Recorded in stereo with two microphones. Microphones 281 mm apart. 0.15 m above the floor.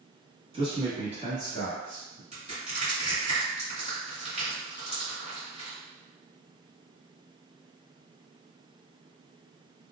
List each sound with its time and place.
0.5 s a man speaking: 20° right (ahead or behind), 1.2 m; by 2.2 s 30° right (ahead or behind), 1.6 m
2.3 s crushing: 20° right (ahead or behind), 1.8 m